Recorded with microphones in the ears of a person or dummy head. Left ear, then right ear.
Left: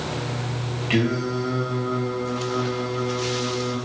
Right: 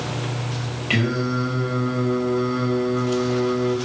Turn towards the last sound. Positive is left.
turn(degrees=-10)  # may be behind; listen again after turning